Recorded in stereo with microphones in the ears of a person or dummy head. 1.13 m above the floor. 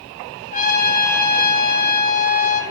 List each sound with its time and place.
0.5 s a trumpet: 45° left (ahead or behind), 3 m